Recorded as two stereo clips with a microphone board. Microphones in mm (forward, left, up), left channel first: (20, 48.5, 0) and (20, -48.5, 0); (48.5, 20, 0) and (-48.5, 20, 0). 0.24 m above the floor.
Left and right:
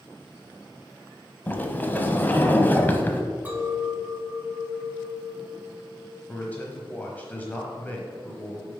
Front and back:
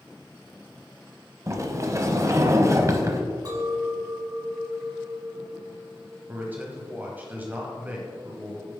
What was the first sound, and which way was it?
A sliding door, 145° left.